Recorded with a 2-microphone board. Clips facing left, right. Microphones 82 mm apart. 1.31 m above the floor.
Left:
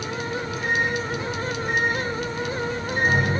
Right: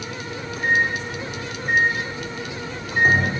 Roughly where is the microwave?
Right.